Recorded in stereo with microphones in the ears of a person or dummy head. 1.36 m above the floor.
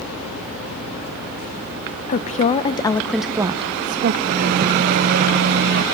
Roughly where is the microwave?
Right.